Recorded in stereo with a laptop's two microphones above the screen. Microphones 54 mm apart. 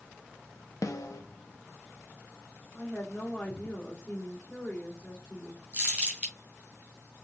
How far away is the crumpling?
About 2.5 m.